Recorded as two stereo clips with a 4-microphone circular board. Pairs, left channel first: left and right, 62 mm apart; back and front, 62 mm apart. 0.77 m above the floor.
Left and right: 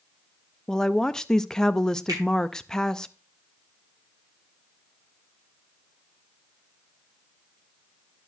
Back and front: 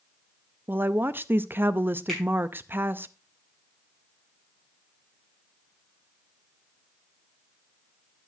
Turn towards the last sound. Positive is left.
turn(degrees=-100)